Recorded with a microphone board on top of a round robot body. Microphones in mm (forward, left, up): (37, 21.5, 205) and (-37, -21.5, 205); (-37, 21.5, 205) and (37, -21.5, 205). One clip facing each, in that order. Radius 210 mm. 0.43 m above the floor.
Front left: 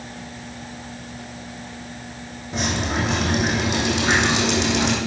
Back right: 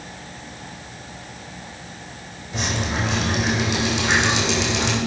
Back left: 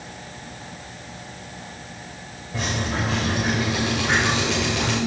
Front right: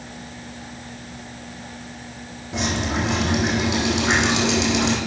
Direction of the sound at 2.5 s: 10° right.